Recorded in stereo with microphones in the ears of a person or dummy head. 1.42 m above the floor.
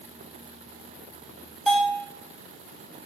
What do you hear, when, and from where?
1.7 s a bell: 5° right (ahead or behind), 1.1 m